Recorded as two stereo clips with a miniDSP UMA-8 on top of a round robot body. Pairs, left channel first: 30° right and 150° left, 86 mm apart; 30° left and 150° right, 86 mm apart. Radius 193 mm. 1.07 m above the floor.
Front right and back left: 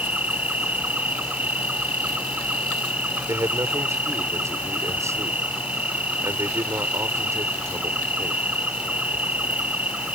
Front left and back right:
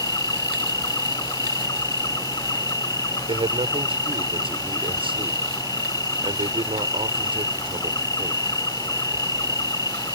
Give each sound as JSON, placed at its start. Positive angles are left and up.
{"t": 0.0, "sound": "an insect", "azimuth_deg": 75}
{"t": 3.3, "sound": "a man speaking", "azimuth_deg": -150}